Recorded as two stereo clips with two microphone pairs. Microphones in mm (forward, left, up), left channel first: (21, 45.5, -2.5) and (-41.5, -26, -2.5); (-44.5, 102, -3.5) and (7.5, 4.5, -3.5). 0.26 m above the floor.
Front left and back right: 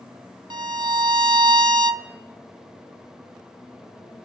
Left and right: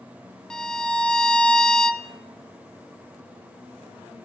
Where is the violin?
165° right, 0.6 m.